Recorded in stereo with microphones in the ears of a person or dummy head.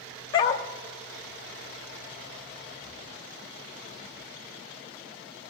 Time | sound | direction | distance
0.3 | a dog barking | 25° left (ahead or behind) | 1.2 m